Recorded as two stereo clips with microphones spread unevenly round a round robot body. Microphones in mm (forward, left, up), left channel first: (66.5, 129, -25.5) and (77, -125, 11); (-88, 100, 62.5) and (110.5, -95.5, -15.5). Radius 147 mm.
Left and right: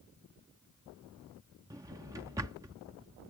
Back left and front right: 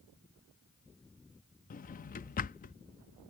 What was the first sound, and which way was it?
A drawer, 165° right.